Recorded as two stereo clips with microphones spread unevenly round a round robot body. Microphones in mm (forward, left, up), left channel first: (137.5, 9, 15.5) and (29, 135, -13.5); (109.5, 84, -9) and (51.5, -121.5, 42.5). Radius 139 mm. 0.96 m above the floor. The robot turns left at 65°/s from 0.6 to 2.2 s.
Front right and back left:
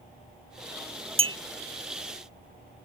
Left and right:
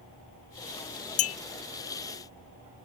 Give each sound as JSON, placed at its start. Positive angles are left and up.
{"t": 1.2, "sound": "a clink", "azimuth_deg": 75}